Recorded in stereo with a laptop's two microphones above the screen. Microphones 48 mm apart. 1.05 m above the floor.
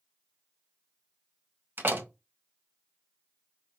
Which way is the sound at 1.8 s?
45° right (ahead or behind).